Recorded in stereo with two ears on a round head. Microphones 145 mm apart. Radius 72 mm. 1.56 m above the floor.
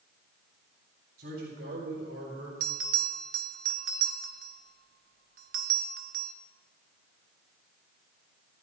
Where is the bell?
60° right (ahead or behind), 1.4 m.